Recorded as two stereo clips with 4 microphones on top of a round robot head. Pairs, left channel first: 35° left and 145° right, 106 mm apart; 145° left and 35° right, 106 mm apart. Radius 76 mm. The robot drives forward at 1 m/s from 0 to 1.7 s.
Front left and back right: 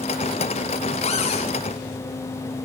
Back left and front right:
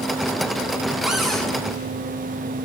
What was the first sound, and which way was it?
A cupboard door, 50° left.